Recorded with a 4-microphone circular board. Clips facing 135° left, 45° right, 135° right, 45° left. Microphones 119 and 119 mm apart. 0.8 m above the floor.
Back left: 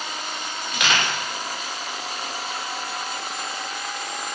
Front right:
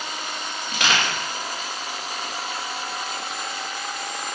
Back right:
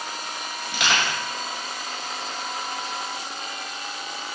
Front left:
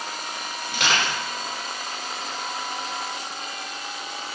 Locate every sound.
0.7 s crushing: 5° left, 1.9 m